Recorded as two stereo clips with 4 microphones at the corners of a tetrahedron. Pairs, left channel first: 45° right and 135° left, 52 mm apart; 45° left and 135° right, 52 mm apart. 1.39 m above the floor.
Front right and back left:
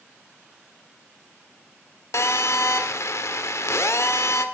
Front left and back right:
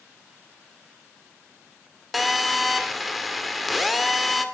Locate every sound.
2.1 s a phone buzzing: 45° right, 2 m